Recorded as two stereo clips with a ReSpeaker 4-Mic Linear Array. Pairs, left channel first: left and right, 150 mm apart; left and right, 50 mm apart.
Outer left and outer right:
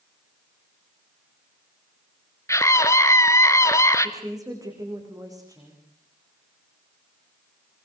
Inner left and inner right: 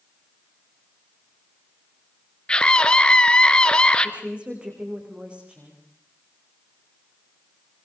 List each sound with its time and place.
2.5 s a scream: 20° left (ahead or behind), 1.2 m
4.0 s a woman speaking: 25° right (ahead or behind), 7.5 m